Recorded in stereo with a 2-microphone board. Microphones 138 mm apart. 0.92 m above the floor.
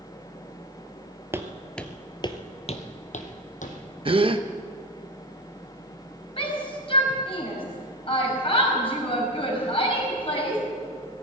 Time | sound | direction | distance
1.3 | footsteps | 15° right (ahead or behind) | 1.1 m
4.0 | a gasp | 40° right (ahead or behind) | 0.7 m
6.4 | a shout | 40° left (ahead or behind) | 5 m